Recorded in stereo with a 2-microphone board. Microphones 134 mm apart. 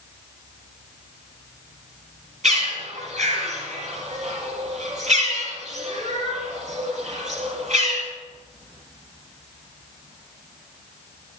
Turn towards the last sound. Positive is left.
turn(degrees=-55)  # may be behind; listen again after turning